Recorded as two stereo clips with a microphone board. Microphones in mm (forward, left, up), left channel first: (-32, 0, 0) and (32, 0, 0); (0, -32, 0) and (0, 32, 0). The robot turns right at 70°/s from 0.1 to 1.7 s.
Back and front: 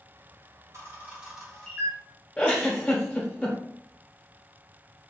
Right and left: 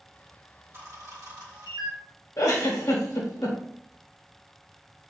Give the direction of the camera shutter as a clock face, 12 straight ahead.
11 o'clock.